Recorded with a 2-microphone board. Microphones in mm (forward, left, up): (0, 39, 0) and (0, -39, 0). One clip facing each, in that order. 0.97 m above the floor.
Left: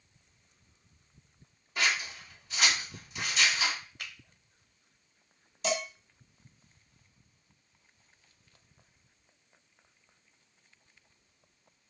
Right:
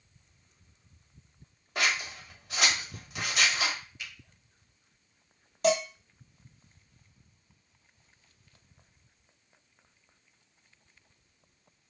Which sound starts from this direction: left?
A finger snap, at 4.0 s.